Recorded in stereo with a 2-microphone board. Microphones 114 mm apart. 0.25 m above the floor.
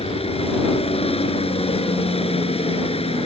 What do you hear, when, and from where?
0.0 s a helicopter: 60° left (ahead or behind)